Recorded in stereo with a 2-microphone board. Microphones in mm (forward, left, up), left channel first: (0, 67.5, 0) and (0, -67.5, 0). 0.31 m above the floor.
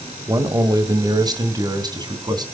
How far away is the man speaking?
About 1.7 m.